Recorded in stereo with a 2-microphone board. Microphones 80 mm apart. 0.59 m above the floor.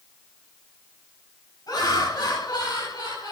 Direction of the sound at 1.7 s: 60° left (ahead or behind).